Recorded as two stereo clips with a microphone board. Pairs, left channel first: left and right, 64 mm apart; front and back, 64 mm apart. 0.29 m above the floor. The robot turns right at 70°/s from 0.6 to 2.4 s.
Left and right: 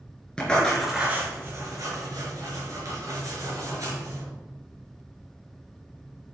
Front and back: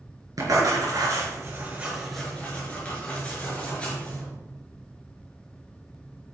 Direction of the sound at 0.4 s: 165° left.